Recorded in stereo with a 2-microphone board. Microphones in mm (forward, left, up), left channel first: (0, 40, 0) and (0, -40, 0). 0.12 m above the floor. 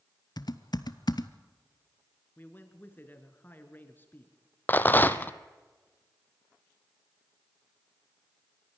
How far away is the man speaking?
About 1.9 m.